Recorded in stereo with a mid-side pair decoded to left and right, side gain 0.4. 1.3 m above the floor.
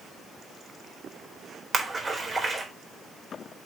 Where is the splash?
35° right, 4 m.